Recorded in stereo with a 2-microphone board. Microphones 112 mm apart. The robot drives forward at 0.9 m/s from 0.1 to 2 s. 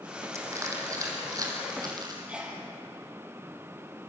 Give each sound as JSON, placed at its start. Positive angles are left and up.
{"t": 0.3, "sound": "crushing", "side_deg": -25, "distance_m": 6.0}
{"t": 2.3, "sound": "a sneeze", "side_deg": -10, "distance_m": 6.0}